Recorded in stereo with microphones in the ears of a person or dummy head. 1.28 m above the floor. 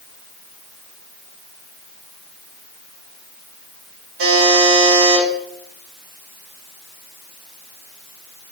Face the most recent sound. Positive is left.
turn(degrees=-75)  # may be behind; listen again after turning